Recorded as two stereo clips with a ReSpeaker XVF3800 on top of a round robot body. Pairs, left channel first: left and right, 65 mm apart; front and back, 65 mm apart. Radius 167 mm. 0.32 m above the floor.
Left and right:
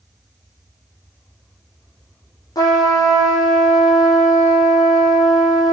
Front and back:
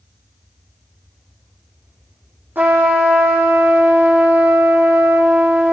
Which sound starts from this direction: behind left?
A trumpet, at 2.5 s.